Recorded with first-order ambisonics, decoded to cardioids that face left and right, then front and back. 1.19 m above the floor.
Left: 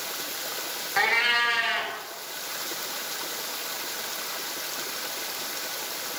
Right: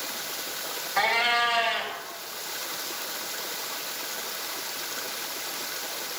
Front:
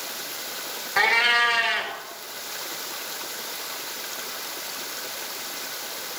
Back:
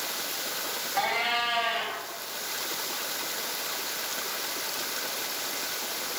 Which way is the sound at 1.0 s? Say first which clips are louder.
Left 1 dB, front 8 dB; 15° left.